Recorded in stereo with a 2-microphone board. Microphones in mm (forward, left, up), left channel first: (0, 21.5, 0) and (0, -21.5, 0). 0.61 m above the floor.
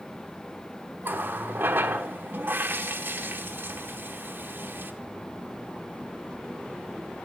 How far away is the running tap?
About 1.1 m.